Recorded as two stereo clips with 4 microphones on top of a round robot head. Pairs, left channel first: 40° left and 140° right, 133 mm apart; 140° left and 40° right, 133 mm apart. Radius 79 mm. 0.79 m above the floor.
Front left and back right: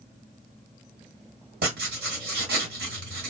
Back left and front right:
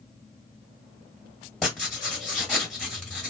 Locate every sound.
1.6 s writing: 135° right, 1.6 m